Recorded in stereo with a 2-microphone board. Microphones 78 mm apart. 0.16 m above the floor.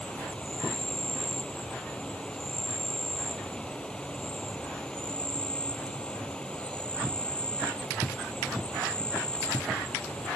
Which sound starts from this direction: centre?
An insect, at 0.0 s.